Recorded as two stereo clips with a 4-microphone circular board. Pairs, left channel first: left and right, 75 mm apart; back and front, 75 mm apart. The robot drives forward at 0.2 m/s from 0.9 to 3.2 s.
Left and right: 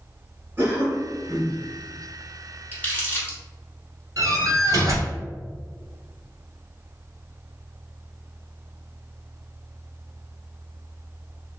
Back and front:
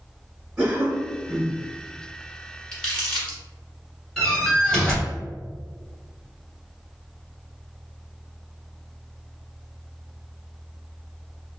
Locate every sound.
0.6 s a cough: 60° right, 1.2 m; by 1.6 s 75° right, 1.2 m
2.7 s crumpling: 110° left, 1.4 m; by 3.4 s 120° left, 1.5 m
4.2 s a door slam: 100° right, 1.7 m